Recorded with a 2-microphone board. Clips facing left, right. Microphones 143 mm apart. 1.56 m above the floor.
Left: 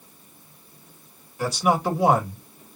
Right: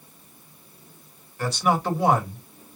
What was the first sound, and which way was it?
A man speaking, 15° left (ahead or behind).